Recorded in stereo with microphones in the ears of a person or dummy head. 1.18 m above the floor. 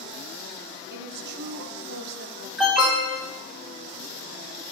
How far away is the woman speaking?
About 0.7 m.